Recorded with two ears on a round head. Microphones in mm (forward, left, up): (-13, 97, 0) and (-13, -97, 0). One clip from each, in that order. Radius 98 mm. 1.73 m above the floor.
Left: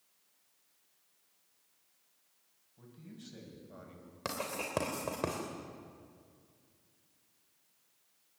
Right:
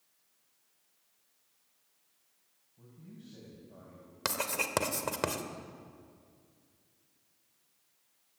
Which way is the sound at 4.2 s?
40° right (ahead or behind).